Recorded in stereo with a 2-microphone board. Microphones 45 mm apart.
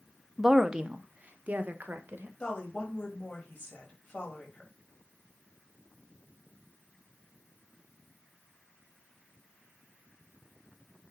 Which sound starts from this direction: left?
A woman speaking, at 2.4 s.